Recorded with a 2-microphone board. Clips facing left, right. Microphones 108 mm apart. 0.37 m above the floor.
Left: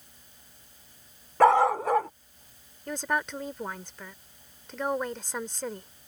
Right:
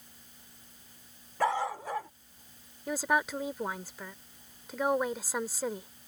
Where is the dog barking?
80° left.